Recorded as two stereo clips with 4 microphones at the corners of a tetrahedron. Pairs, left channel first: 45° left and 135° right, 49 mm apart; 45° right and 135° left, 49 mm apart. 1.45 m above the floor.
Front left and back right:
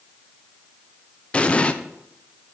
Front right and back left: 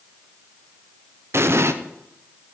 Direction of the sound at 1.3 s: 110° left.